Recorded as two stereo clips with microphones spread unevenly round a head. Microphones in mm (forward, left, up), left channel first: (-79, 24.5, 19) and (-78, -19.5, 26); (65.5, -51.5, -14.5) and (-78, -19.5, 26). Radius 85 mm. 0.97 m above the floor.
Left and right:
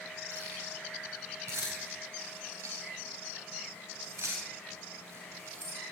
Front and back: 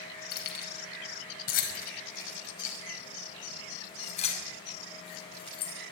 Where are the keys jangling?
30° right, 4.5 m; by 5.7 s 70° right, 6 m.